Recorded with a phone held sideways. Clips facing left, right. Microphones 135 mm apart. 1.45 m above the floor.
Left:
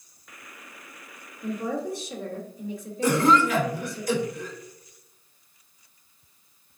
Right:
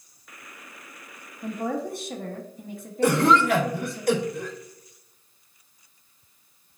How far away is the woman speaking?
About 1.0 m.